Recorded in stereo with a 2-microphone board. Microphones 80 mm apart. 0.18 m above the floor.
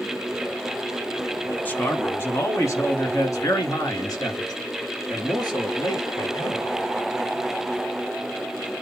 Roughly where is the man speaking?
Left.